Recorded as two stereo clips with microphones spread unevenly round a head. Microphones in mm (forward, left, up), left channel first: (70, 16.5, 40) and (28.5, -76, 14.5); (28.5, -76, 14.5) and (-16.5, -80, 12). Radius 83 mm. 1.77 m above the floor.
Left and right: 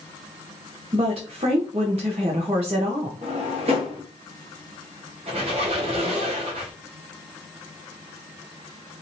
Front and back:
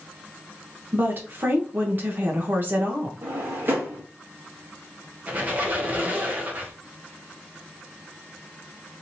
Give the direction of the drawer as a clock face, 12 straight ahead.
5 o'clock.